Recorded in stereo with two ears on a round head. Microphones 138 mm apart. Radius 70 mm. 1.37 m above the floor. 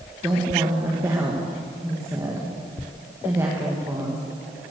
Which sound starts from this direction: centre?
A woman speaking, at 0.2 s.